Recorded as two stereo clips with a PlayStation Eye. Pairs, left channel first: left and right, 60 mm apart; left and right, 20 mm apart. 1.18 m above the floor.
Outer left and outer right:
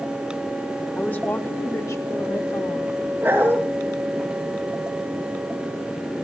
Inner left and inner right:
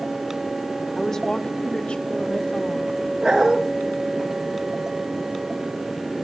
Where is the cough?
No cough in this recording.